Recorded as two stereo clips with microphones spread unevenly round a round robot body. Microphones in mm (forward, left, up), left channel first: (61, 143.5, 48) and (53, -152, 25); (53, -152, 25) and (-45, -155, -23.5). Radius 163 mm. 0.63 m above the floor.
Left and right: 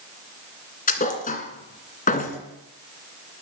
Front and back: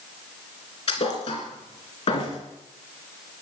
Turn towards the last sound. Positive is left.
turn(degrees=25)